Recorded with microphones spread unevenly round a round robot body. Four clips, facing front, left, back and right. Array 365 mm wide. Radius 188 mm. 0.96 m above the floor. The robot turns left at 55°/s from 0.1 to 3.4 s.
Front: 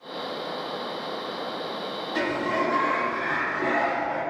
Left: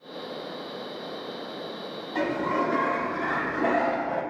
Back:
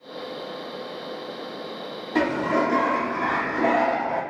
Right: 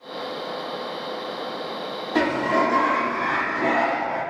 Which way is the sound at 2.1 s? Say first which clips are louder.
Right 5 dB, back 4 dB; 125° right.